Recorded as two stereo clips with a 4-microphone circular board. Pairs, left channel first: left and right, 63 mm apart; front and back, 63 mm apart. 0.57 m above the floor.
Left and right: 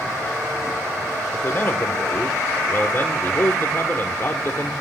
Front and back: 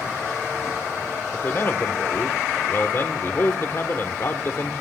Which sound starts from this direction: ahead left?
A man speaking, at 1.3 s.